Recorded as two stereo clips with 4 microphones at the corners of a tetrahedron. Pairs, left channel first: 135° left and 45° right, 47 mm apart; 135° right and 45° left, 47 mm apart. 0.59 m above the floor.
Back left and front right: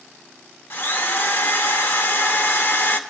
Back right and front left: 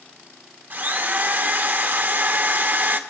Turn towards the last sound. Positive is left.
turn(degrees=95)